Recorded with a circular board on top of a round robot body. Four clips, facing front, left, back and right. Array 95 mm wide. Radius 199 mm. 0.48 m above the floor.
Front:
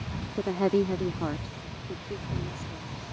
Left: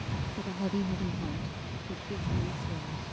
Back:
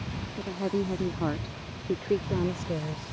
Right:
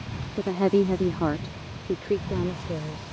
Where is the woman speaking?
45° right; by 3.1 s 145° right.